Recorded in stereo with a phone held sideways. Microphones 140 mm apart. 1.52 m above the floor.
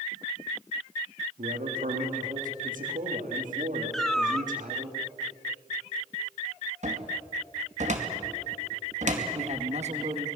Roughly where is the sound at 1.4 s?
Right.